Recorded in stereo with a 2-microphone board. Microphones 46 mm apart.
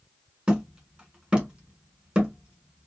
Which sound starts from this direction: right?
Hammering, at 0.5 s.